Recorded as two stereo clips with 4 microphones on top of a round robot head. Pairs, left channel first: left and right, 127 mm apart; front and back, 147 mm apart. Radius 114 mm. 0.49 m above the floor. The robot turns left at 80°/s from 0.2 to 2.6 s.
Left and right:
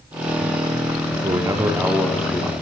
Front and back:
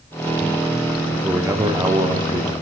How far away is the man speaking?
About 0.8 m.